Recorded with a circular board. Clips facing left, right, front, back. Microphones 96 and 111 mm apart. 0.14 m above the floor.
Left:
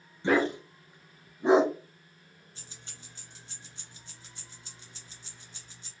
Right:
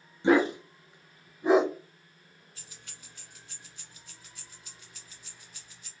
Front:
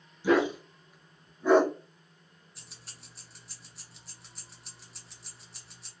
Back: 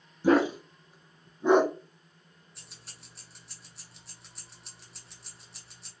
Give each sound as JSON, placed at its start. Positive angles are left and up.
{"t": 0.2, "sound": "a dog barking", "azimuth_deg": -155, "distance_m": 0.9}
{"t": 2.5, "sound": "keys jangling", "azimuth_deg": 90, "distance_m": 0.8}